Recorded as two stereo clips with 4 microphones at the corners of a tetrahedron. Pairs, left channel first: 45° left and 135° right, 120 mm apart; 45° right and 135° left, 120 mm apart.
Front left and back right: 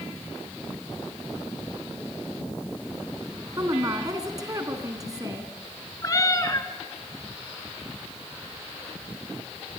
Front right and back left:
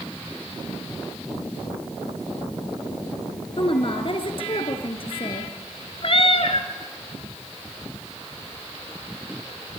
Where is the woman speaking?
80° right, 2.5 m.